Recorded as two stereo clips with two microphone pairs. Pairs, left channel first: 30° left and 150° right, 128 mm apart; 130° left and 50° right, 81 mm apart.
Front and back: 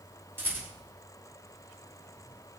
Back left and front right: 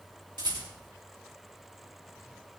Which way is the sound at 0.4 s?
75° right.